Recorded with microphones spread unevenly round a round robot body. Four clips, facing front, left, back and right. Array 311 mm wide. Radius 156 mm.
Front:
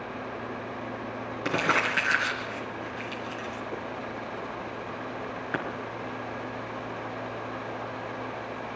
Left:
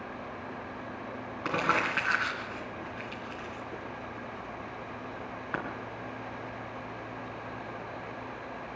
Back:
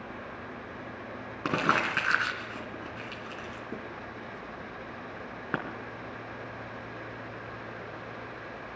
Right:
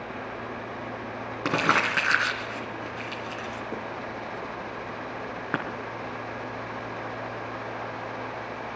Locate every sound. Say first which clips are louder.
1.4 s crumpling: right 4 dB, front 1 dB; 130° right, 3.5 m